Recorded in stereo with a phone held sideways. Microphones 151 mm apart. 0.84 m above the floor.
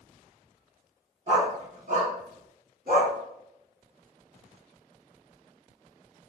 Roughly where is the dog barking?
Right.